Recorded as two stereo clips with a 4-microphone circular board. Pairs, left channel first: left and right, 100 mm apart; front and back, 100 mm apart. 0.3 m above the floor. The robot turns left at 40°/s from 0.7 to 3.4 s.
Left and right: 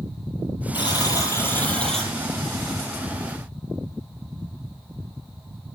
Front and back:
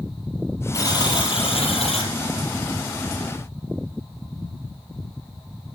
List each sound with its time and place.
0.7 s a buzzer: 55° left, 4.5 m; by 2.1 s straight ahead, 4.5 m